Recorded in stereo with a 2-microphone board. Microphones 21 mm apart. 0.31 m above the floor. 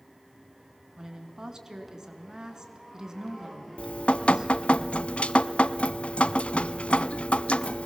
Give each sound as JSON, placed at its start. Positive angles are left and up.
{"t": 1.0, "sound": "a woman speaking", "side_deg": -25, "distance_m": 2.5}
{"t": 3.8, "sound": "dripping", "side_deg": 65, "distance_m": 0.6}